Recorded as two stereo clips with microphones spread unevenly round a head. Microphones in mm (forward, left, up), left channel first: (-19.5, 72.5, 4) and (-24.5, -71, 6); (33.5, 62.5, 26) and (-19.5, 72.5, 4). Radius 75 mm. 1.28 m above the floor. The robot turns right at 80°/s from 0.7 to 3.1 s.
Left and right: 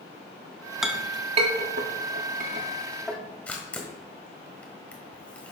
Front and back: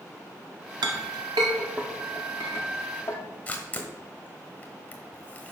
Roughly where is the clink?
Behind.